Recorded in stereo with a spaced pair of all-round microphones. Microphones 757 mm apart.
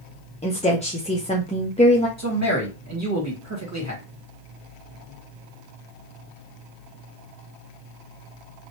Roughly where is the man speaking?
Right.